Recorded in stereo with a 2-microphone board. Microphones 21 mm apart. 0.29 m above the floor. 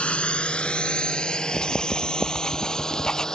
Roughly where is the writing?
Left.